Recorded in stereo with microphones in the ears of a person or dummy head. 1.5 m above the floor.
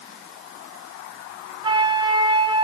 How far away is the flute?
About 0.6 m.